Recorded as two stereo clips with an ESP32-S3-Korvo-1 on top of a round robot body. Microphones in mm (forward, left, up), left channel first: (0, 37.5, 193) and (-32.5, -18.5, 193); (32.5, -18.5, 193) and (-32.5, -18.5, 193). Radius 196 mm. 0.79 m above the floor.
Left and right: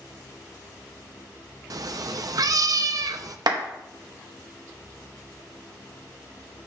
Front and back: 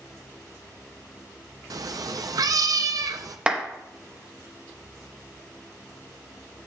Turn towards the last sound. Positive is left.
turn(degrees=-105)